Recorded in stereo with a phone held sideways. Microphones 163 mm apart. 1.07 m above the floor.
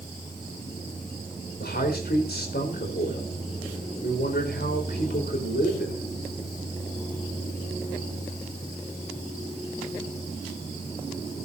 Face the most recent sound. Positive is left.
turn(degrees=80)